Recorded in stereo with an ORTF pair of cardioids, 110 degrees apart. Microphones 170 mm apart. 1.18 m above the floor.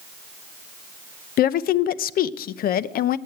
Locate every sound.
1.4 s a woman speaking: 60° left, 0.7 m